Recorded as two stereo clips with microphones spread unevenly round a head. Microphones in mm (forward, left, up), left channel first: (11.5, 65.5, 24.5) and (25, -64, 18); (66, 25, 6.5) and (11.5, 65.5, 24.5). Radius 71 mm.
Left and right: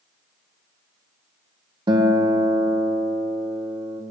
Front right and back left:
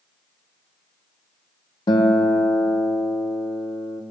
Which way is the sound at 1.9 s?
30° right.